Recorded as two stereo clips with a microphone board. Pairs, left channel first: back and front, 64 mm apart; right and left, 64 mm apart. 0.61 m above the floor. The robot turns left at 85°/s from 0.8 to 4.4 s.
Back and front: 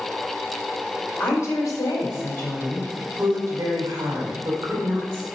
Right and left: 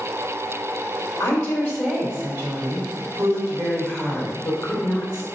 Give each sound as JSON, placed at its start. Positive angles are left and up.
{"t": 1.2, "sound": "a woman speaking", "azimuth_deg": -120, "distance_m": 2.5}